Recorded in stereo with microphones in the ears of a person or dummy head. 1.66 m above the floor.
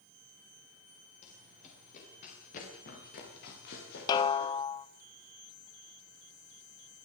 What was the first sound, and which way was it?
Running footsteps, 40° left (ahead or behind).